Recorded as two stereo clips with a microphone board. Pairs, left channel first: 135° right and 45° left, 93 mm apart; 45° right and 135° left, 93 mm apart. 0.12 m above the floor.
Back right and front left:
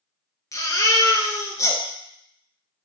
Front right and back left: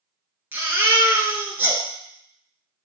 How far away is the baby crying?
About 0.9 m.